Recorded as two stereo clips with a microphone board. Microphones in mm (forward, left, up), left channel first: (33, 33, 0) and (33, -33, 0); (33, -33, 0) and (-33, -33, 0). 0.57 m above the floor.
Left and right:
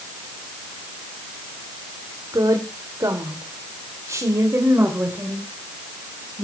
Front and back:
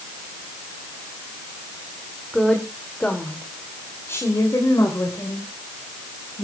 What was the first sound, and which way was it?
A woman speaking, 90° right.